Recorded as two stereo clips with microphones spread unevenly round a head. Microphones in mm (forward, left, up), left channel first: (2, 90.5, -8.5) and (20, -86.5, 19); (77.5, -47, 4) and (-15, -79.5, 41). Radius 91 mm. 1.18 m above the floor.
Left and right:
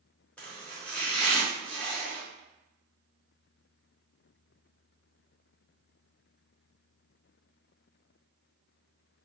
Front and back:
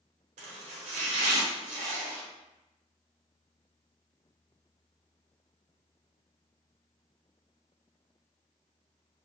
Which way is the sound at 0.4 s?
175° left.